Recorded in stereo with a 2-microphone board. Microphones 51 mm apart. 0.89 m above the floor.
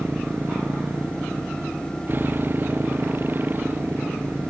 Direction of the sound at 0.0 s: 40° right (ahead or behind).